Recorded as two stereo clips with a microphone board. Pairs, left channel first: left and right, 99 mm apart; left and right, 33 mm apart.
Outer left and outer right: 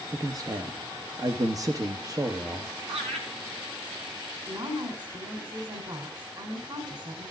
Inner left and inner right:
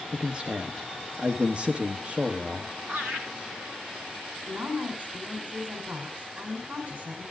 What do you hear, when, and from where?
0.1 s a man speaking: 35° right (ahead or behind), 1.2 m
2.9 s laughter: 85° right, 8 m
4.5 s a woman speaking: 50° right (ahead or behind), 3.5 m